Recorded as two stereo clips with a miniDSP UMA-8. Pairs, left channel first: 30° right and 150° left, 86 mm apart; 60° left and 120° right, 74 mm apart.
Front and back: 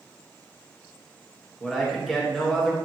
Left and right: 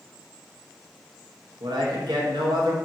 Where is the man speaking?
120° right, 1.5 m.